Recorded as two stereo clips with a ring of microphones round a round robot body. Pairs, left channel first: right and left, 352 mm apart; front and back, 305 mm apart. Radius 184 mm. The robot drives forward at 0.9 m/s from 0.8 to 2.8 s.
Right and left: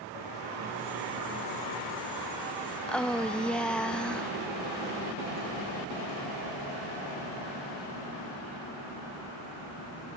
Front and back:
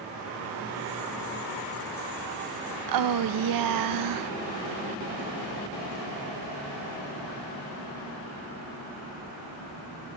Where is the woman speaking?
175° right.